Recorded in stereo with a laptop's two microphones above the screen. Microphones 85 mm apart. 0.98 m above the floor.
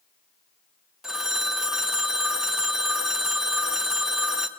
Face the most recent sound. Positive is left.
turn(degrees=-5)  # may be behind; listen again after turning